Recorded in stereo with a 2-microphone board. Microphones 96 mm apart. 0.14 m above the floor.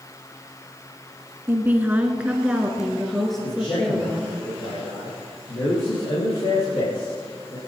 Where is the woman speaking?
25° right (ahead or behind), 1.3 m; by 4.4 s 10° left (ahead or behind), 2 m.